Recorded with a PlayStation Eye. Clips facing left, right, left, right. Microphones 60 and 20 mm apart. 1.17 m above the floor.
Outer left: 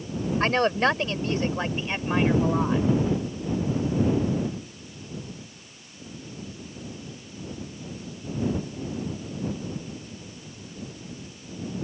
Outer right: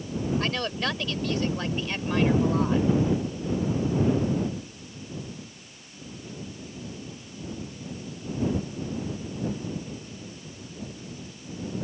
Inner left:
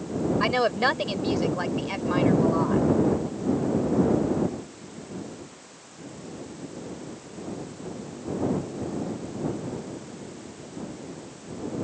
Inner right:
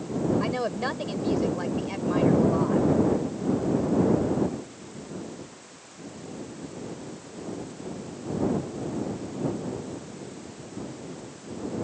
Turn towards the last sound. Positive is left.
turn(degrees=15)  # may be behind; listen again after turning